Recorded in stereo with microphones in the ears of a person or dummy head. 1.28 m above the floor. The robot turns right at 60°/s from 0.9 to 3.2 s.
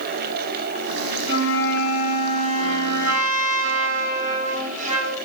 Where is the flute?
155° right, 6.5 m; by 5.2 s 40° right, 6.5 m.